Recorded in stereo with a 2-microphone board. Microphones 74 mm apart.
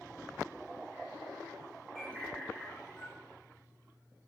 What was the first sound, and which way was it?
A bird, 15° left (ahead or behind).